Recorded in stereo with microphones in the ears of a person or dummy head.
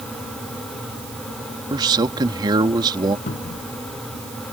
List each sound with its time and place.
1.7 s a man speaking: 15° right (ahead or behind)
3.3 s a cupboard door: 30° left (ahead or behind)